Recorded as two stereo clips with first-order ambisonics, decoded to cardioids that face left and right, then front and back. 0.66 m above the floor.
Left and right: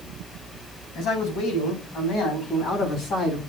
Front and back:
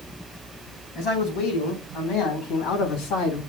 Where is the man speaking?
50° left, 5 m; by 3.4 s 35° left, 4.5 m.